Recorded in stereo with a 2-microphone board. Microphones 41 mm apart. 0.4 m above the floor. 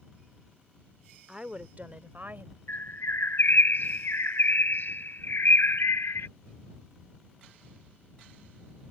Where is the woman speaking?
15° right (ahead or behind); by 2.6 s 50° right (ahead or behind).